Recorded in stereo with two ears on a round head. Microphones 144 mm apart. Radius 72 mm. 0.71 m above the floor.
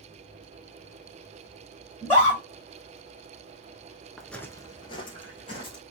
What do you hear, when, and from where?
2.0 s a scream: 10° left (ahead or behind), 2.5 m
4.2 s footsteps: centre (ahead or behind), 0.7 m; by 5.8 s 30° left (ahead or behind), 1.9 m